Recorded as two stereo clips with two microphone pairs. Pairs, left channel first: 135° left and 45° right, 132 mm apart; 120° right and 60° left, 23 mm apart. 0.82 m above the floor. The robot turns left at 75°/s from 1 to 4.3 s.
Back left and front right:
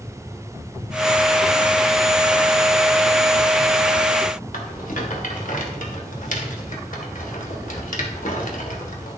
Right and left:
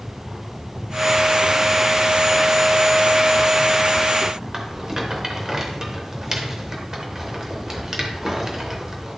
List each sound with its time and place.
4.5 s a rattle: 130° left, 1.8 m